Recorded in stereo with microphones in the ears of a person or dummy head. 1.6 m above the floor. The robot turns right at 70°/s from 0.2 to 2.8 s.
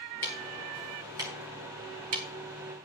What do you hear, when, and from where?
0.2 s ticking: 20° left (ahead or behind), 1.4 m; by 2.3 s 30° right (ahead or behind), 1.4 m